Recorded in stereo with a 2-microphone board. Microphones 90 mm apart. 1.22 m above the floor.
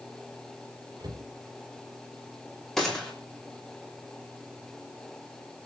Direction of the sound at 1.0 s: 50° right (ahead or behind).